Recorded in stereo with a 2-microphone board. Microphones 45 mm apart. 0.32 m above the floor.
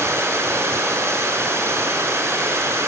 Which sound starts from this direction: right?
Running water, at 0.0 s.